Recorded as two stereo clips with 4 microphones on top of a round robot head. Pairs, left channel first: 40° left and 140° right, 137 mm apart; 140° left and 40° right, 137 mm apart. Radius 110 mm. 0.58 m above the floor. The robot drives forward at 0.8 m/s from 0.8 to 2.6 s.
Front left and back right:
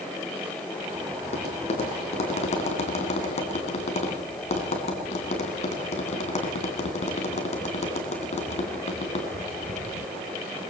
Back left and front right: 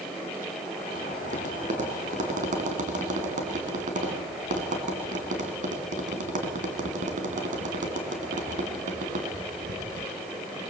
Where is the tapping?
5° right, 3.5 m.